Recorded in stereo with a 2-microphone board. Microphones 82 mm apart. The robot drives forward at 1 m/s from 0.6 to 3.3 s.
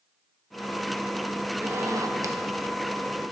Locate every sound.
1.6 s a zipper: 25° right (ahead or behind), 0.7 m; by 2.4 s 40° right (ahead or behind), 0.5 m